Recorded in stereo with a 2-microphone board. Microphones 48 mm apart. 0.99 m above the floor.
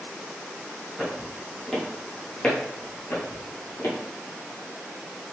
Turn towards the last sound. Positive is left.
turn(degrees=55)  # may be behind; listen again after turning